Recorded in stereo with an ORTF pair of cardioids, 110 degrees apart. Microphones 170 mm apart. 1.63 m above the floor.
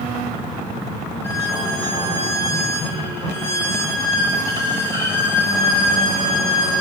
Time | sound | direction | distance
1.2 | a violin | 15° left | 1.0 m